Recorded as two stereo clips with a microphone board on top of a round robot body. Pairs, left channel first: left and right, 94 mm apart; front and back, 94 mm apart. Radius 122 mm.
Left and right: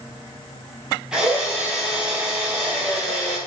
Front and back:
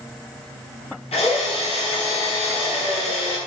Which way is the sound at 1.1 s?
5° right.